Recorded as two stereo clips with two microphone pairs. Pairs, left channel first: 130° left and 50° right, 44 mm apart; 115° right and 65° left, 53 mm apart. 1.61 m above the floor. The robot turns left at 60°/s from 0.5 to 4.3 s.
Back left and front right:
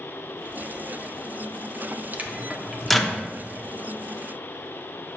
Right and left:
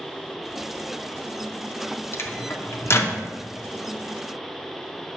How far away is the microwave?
About 0.6 m.